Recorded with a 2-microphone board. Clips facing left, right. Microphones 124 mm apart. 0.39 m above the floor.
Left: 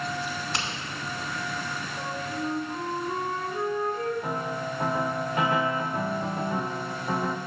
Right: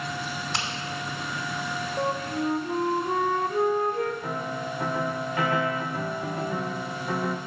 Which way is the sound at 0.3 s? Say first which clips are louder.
Even; centre (ahead or behind).